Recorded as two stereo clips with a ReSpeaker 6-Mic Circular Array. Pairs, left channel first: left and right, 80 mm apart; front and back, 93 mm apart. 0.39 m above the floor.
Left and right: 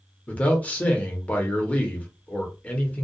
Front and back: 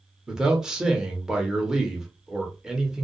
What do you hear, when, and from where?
0.3 s a man speaking: 110° left, 0.8 m